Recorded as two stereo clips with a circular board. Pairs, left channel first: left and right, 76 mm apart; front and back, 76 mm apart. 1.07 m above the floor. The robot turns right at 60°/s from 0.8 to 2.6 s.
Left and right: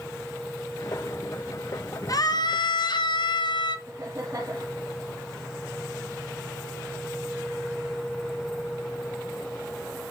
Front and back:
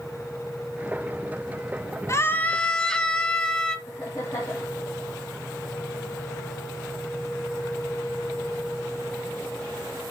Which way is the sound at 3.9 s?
45° right.